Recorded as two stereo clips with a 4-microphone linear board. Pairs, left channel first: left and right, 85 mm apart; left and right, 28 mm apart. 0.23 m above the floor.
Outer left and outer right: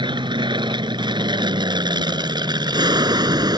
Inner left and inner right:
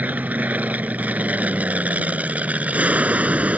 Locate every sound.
0.0 s an aircraft: 65° right (ahead or behind); by 3.6 s 50° right (ahead or behind)